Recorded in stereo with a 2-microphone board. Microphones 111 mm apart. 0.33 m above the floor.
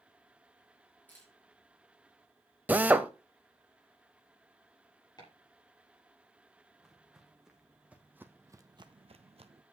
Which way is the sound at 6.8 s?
Centre (ahead or behind).